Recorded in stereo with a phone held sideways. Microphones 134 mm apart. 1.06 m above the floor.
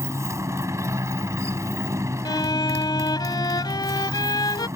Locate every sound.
0.0 s a motorcycle: 20° right (ahead or behind)
2.2 s a violin: 30° left (ahead or behind)